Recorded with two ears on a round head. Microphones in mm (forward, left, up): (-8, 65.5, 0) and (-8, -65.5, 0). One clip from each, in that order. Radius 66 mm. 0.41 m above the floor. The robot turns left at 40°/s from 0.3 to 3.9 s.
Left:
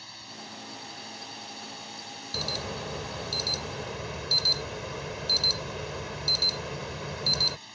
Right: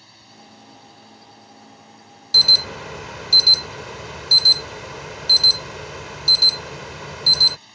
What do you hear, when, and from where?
0.0 s a drone: 150° left; by 7.8 s 5° left
2.3 s an alarm: 70° right; by 7.6 s 130° right